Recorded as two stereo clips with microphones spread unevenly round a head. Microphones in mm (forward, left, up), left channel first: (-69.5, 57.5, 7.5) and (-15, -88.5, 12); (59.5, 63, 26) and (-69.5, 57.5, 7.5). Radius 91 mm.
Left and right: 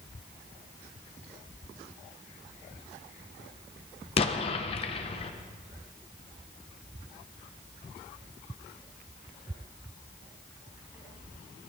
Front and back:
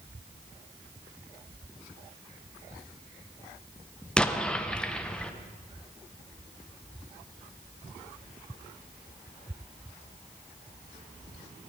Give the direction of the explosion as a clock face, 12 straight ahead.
10 o'clock.